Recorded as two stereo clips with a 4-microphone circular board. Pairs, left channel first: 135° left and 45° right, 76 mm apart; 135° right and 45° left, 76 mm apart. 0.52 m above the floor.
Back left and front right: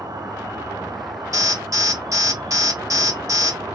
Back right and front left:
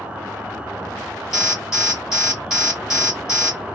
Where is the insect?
25° right, 0.8 m.